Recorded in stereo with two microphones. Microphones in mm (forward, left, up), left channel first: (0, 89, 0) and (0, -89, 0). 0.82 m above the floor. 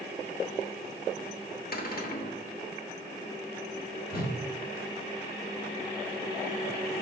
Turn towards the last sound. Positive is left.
turn(degrees=55)  # may be behind; listen again after turning